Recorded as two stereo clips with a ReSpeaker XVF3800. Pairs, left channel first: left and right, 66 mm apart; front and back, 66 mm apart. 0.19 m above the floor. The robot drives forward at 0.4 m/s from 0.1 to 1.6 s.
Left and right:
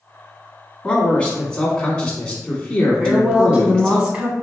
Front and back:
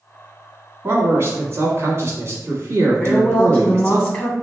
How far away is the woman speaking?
About 1.7 m.